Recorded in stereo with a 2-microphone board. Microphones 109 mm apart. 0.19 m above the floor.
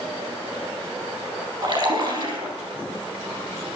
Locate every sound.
1.6 s a splash: 45° right (ahead or behind), 5.5 m